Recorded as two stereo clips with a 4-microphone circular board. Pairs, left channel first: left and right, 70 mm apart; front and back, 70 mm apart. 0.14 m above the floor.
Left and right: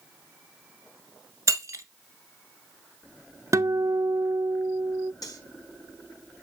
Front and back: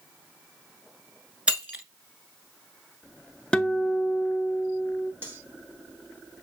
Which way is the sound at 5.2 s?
120° left.